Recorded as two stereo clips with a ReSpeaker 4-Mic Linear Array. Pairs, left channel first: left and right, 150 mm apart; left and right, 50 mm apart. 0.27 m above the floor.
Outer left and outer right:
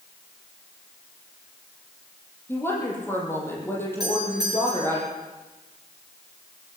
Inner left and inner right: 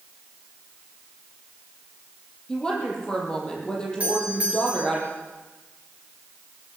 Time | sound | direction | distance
2.5 | a woman speaking | 15° left (ahead or behind) | 8 m
4.0 | a doorbell | 25° right (ahead or behind) | 6.5 m